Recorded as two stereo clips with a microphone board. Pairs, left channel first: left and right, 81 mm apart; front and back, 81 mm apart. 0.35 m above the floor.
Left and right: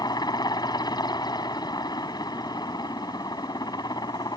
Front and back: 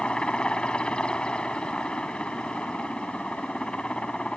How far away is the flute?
No flute in this recording.